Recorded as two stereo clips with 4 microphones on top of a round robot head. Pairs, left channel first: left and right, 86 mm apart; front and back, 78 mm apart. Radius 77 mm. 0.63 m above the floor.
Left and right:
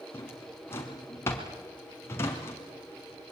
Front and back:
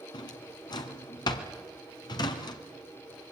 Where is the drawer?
25° left, 1.9 m.